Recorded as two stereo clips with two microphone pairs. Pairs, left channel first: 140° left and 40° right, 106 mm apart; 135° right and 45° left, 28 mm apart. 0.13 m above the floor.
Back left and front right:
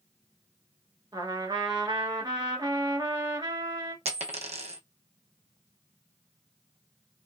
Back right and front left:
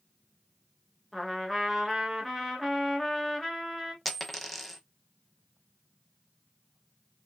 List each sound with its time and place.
1.1 s a trumpet: 40° right, 1.2 m
4.0 s a dropped coin: 45° right, 0.8 m